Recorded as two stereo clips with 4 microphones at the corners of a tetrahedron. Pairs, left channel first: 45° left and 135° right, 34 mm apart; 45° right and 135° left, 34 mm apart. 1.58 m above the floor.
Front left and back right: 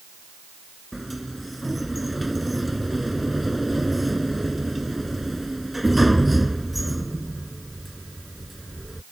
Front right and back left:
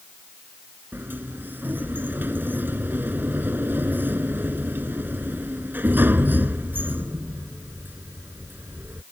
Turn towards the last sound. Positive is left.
turn(degrees=140)